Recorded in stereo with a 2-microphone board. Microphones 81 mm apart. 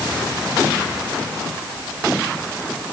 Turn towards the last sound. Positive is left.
No sound to turn to.